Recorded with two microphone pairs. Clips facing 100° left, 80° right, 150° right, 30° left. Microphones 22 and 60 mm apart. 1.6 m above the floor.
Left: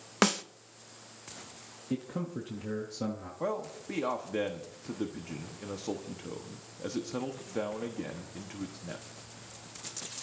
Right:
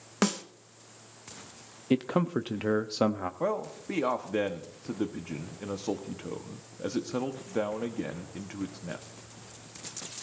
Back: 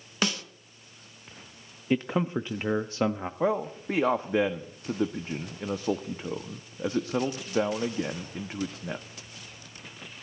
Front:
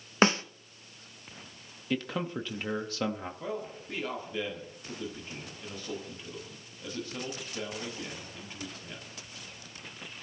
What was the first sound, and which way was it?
A snare drum, 40° left.